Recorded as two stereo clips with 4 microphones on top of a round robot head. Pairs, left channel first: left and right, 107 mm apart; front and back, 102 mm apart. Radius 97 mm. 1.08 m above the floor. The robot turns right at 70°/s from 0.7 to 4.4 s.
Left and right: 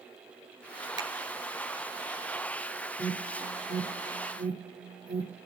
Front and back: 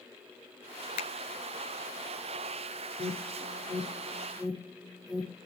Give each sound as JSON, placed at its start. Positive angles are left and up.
{"t": 1.0, "sound": "a finger snap", "azimuth_deg": -25, "distance_m": 0.6}
{"t": 3.0, "sound": "an alarm", "azimuth_deg": -145, "distance_m": 4.0}